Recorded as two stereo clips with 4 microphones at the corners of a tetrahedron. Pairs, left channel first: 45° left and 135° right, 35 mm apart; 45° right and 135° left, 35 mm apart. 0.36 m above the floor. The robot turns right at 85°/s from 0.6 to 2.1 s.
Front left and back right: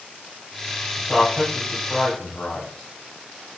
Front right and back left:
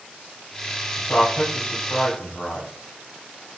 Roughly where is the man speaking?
Ahead right.